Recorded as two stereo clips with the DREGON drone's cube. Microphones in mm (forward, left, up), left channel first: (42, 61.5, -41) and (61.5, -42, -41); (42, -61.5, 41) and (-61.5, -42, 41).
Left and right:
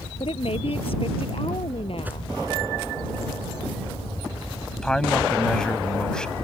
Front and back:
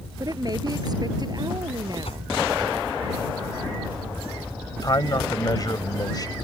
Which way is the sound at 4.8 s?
20° left.